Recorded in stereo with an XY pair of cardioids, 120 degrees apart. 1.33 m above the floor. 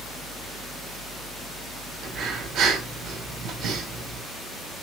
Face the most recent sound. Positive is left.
turn(degrees=-70)